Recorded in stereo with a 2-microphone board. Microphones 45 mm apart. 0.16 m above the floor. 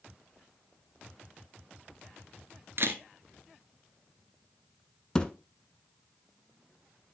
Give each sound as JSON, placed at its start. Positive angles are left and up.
{"t": 2.8, "sound": "a camera shutter", "side_deg": -60, "distance_m": 1.2}
{"t": 5.2, "sound": "a thud", "side_deg": 15, "distance_m": 0.9}